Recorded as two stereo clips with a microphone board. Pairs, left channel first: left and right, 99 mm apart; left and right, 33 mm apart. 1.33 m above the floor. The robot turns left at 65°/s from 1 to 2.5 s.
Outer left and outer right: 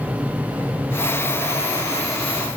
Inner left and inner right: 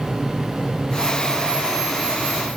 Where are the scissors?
No scissors in this recording.